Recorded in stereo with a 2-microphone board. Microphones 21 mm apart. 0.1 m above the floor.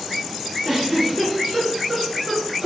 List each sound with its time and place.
0.7 s a giggle: 25° right (ahead or behind), 1.4 m